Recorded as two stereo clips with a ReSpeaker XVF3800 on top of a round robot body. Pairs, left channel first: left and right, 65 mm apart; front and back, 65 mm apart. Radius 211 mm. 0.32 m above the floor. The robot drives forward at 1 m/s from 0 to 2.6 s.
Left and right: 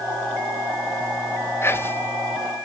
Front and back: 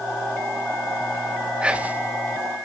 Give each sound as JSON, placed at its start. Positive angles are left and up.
{"t": 1.6, "sound": "whispering", "azimuth_deg": 110, "distance_m": 1.8}